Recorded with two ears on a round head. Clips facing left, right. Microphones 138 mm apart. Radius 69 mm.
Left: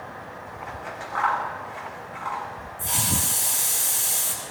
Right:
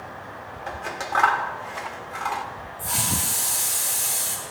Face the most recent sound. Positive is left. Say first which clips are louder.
# even
turn(degrees=30)  # may be behind; listen again after turning